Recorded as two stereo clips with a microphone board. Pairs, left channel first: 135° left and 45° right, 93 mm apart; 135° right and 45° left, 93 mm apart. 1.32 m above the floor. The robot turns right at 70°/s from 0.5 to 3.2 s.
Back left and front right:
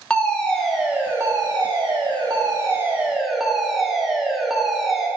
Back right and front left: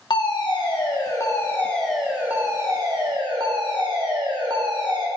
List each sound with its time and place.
0.1 s a fire alarm: 145° right, 1.2 m; by 5.1 s 40° left, 1.2 m